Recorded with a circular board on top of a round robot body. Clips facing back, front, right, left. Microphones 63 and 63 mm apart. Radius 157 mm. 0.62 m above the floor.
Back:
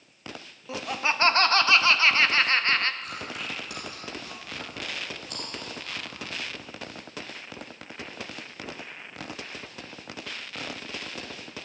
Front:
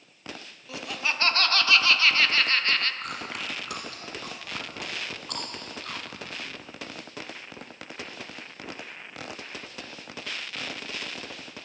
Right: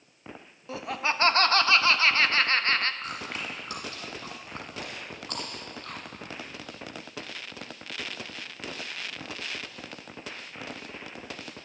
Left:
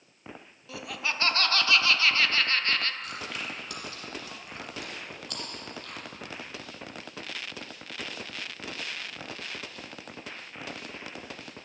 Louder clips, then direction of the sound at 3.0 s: Front 1 dB, right 1 dB; 35° right.